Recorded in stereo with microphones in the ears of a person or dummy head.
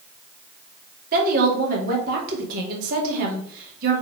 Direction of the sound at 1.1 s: 55° right (ahead or behind).